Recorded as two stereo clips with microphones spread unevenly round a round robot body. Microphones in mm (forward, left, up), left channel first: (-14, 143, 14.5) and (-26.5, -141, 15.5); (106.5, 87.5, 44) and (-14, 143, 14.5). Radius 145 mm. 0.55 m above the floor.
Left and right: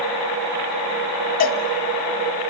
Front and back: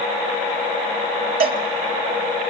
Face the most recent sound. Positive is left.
turn(degrees=145)